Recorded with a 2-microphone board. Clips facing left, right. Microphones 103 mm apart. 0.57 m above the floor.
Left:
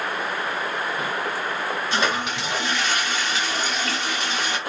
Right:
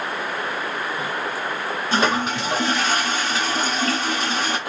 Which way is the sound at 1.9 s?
40° right (ahead or behind).